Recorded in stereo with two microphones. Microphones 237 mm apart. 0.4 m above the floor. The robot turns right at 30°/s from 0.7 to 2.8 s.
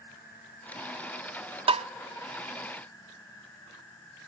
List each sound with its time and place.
0.0 s an insect: 40° left, 4.5 m; by 4.3 s 105° left, 4.5 m
1.7 s tapping: 25° right (ahead or behind), 0.5 m; by 1.9 s 30° right (ahead or behind), 0.5 m